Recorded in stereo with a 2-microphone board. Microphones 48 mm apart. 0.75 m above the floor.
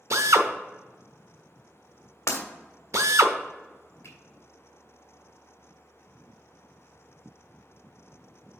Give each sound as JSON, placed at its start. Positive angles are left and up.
{"t": 0.1, "sound": "a drill", "side_deg": -75, "distance_m": 0.7}
{"t": 2.3, "sound": "breaking glass", "side_deg": 75, "distance_m": 1.5}
{"t": 4.0, "sound": "a finger snap", "side_deg": 60, "distance_m": 2.0}